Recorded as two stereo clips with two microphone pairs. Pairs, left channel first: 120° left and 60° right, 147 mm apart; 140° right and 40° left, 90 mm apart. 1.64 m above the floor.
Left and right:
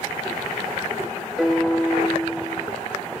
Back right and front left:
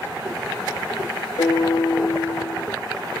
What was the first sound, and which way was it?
A piano, 155° right.